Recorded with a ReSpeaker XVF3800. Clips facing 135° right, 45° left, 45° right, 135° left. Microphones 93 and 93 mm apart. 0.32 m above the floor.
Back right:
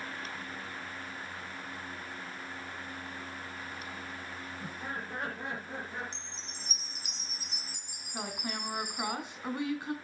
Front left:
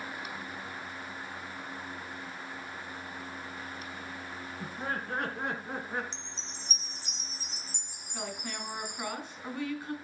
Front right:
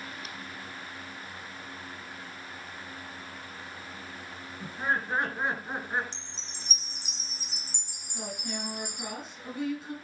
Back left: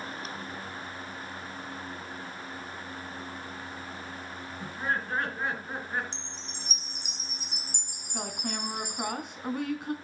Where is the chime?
105° left, 1.8 m.